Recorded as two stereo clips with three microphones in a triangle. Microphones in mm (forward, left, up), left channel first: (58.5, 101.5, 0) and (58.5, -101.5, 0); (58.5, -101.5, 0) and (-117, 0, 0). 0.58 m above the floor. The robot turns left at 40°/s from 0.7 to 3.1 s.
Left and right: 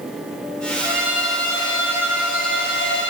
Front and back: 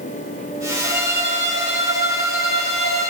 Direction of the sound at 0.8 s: 165° right.